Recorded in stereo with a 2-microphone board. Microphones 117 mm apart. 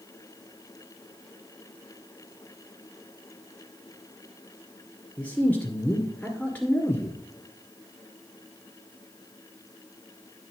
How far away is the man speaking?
About 1.6 m.